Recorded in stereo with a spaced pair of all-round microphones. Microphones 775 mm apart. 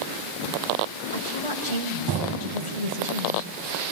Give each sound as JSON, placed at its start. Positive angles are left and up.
{"t": 1.1, "sound": "a woman speaking", "side_deg": -40, "distance_m": 7.0}